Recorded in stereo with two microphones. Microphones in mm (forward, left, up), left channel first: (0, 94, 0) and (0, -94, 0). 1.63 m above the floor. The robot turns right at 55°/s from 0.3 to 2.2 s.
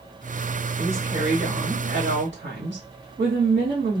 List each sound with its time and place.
0.8 s a woman speaking: 175° left, 1.4 m; by 4.0 s 110° right, 1.4 m